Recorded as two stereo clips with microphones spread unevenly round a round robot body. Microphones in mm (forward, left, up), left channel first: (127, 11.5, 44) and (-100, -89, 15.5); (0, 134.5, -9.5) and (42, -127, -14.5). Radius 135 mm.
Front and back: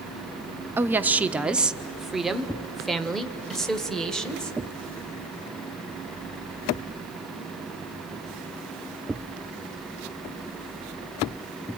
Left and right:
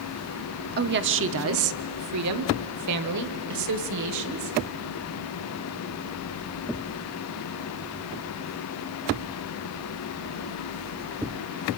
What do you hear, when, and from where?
0.8 s a woman speaking: 90° right, 0.8 m; by 4.5 s 65° right, 2.5 m